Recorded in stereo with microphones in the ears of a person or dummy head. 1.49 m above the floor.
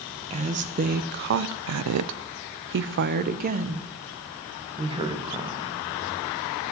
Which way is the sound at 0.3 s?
30° right (ahead or behind).